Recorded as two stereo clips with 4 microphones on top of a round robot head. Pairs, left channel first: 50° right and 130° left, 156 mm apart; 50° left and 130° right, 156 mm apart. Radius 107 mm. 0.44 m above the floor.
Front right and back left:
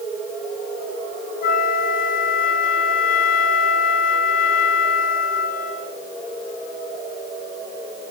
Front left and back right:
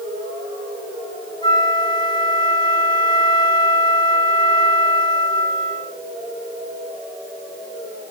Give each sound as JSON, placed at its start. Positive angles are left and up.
{"t": 1.4, "sound": "a flute", "azimuth_deg": -15, "distance_m": 4.5}